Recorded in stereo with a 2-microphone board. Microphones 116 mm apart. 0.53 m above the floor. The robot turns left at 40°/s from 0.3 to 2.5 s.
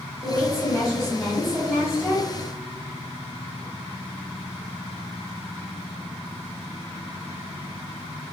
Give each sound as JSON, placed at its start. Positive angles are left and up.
{"t": 0.2, "sound": "a woman speaking", "azimuth_deg": 45, "distance_m": 1.4}